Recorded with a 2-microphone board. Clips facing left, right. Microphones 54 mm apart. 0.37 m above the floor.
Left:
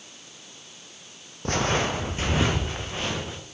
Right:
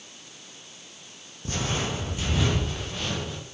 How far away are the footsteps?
About 0.8 m.